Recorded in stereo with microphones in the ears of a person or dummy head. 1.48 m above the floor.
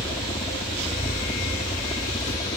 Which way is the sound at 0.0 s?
20° left (ahead or behind).